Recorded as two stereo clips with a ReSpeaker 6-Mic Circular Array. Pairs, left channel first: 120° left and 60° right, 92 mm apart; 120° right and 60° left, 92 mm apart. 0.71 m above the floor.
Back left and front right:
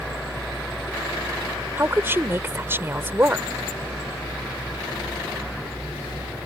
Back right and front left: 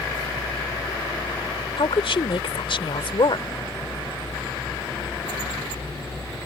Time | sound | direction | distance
1.8 | a woman speaking | 125° right | ?